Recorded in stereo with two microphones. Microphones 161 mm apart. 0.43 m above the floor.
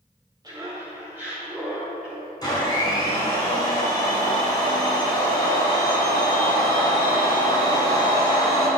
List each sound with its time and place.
0.4 s laughter: 25° right (ahead or behind), 2.5 m; by 2.3 s centre (ahead or behind), 4 m
2.4 s a blender: 25° left (ahead or behind), 3 m